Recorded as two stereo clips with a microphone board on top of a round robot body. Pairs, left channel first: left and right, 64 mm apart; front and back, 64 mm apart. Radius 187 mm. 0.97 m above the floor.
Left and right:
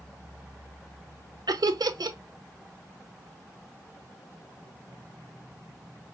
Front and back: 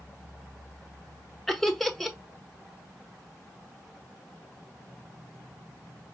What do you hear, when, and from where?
1.5 s laughter: 85° right, 1.0 m